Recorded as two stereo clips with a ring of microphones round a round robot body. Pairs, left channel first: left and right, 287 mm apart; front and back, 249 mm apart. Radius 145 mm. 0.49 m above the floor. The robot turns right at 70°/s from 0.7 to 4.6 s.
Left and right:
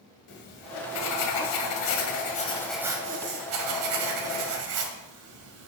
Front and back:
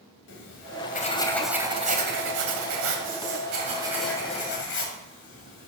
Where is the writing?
40° left, 2 m; by 5.7 s 50° right, 2 m.